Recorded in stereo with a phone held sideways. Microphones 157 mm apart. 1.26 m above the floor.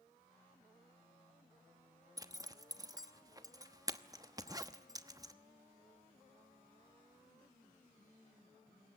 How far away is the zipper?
About 1.0 m.